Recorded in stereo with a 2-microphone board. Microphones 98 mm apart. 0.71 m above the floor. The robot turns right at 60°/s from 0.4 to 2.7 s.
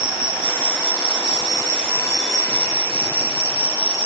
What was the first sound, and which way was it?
An insect, 110° right.